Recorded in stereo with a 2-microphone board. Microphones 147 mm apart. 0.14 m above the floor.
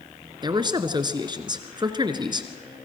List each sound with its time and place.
0.4 s a man speaking: 30° right (ahead or behind), 1.7 m